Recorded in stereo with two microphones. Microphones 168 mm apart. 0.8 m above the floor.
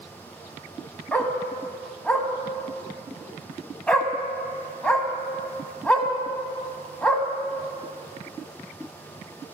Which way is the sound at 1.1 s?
5° left (ahead or behind).